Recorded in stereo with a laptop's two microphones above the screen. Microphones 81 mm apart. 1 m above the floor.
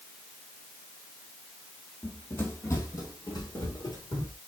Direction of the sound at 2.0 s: 15° left (ahead or behind).